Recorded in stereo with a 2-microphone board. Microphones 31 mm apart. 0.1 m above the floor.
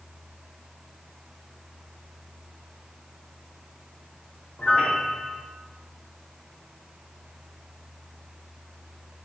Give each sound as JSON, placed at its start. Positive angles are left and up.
{"t": 4.6, "sound": "a piano", "side_deg": 45, "distance_m": 2.0}